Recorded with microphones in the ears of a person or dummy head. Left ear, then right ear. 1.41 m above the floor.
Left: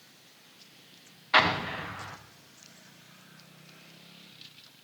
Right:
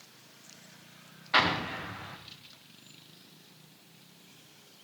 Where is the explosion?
20° left (ahead or behind), 1.1 m.